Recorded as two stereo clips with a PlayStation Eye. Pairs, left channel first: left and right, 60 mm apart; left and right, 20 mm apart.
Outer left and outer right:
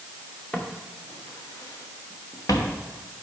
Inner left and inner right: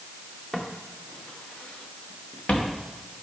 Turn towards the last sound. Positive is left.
turn(degrees=70)  # may be behind; listen again after turning